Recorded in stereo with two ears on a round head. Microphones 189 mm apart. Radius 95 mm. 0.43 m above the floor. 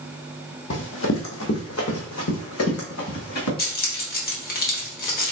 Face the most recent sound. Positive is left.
turn(degrees=45)  # may be behind; listen again after turning